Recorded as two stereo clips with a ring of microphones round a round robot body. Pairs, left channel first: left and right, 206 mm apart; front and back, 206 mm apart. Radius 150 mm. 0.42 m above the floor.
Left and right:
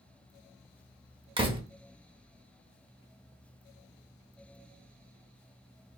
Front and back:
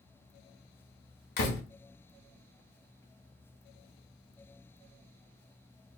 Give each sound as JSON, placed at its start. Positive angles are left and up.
{"t": 1.4, "sound": "a door slam", "azimuth_deg": -25, "distance_m": 1.0}